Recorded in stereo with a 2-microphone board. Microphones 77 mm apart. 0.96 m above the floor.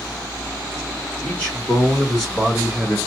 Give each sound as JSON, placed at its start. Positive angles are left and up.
{"t": 1.2, "sound": "a man speaking", "side_deg": 20, "distance_m": 1.9}